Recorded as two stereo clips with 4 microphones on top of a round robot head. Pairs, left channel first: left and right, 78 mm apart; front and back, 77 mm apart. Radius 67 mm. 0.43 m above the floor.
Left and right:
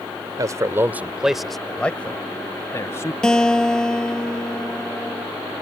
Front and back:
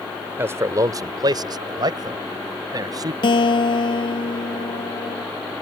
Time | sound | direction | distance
0.4 | a man speaking | 120° right | ?
3.2 | a guitar | 10° left | ?